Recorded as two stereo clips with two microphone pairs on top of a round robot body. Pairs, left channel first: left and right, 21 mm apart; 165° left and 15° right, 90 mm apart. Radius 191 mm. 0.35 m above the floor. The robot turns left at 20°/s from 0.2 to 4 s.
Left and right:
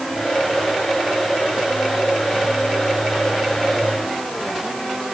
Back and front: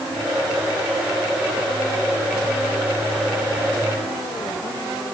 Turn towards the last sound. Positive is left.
No sound to turn to.